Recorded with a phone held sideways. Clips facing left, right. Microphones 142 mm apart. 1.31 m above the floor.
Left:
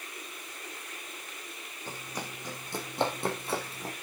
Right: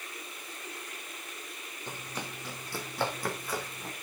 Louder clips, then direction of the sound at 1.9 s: Left 1 dB; 10° left (ahead or behind).